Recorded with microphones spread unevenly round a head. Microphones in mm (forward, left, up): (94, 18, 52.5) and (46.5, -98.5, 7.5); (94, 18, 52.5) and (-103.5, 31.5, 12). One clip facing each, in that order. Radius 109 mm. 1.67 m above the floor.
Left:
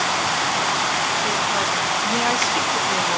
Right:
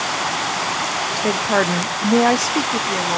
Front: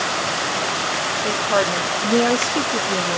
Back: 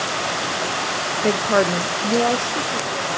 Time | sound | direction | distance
1.2 | a woman speaking | 145° right | 0.8 m